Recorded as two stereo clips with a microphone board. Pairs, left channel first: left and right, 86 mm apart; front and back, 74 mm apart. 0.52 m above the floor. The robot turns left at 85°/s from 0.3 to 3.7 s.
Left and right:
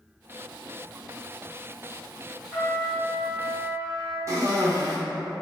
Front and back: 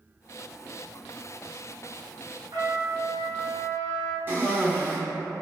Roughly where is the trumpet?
Behind.